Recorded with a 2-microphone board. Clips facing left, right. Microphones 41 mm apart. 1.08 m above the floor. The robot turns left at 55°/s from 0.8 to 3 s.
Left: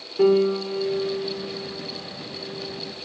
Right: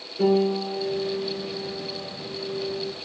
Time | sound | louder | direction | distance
0.2 | a piano | left 3 dB | 60° left | 1.5 m